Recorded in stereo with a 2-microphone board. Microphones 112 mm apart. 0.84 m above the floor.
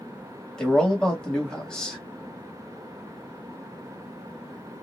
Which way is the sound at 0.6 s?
5° left (ahead or behind).